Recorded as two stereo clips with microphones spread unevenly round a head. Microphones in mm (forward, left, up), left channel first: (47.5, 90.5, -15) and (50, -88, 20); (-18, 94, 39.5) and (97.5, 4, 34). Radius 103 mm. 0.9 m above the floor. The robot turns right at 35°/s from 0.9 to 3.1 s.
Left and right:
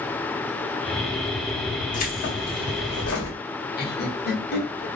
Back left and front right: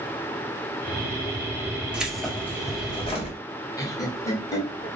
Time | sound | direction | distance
1.9 | keys jangling | 45° left | 1.6 m
3.8 | laughter | 75° left | 1.7 m